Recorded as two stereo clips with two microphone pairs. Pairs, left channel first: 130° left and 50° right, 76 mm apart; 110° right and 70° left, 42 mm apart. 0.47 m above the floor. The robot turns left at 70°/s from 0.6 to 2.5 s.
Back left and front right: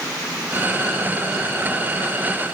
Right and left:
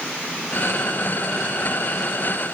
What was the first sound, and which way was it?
Only background noise.